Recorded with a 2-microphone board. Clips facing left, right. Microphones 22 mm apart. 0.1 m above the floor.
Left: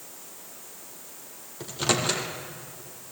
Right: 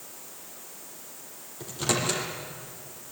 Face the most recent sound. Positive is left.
turn(degrees=20)  # may be behind; listen again after turning